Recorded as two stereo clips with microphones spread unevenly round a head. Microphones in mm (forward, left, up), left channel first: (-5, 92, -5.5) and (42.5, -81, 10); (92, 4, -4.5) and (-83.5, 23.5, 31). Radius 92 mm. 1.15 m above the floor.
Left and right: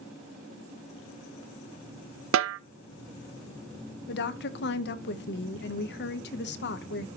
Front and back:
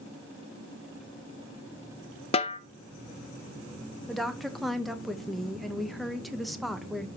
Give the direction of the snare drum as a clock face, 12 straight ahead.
2 o'clock.